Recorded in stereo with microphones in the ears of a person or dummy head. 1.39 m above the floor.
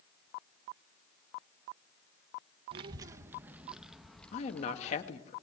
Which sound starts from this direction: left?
A woman speaking, at 4.3 s.